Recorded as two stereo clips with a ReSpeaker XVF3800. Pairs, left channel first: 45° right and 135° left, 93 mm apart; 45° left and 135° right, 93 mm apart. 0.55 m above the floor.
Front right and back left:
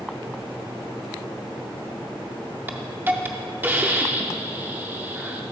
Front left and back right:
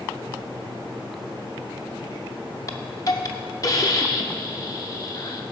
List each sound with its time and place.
2.7 s a hiss: 70° left, 0.5 m